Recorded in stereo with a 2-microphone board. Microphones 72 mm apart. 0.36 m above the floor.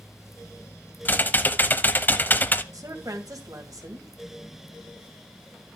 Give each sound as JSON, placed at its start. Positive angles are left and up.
{"t": 1.1, "sound": "typing on a keyboard", "side_deg": 25, "distance_m": 0.7}
{"t": 2.7, "sound": "a woman speaking", "side_deg": -55, "distance_m": 2.0}